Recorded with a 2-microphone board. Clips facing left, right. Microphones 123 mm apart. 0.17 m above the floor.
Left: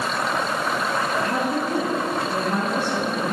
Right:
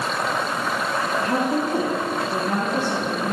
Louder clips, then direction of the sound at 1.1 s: Right 1 dB; 25° right (ahead or behind).